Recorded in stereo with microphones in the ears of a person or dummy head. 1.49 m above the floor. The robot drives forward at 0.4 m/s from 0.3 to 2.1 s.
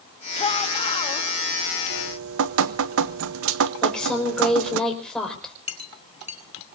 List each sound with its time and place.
0.4 s a shout: 35° left (ahead or behind), 3 m; by 1.3 s 30° left (ahead or behind), 3 m
1.9 s dripping: 75° right (ahead or behind), 0.7 m; by 4.8 s 70° right (ahead or behind), 0.7 m
3.8 s a woman speaking: centre (ahead or behind), 5 m
5.7 s a clink: 35° left (ahead or behind), 1.2 m